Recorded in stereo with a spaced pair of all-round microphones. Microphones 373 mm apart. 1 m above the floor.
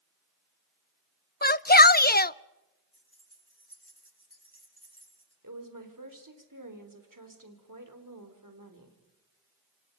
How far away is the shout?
About 0.5 m.